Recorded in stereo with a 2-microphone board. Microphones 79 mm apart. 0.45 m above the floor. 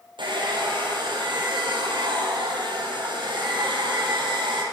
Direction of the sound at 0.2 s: 90° right.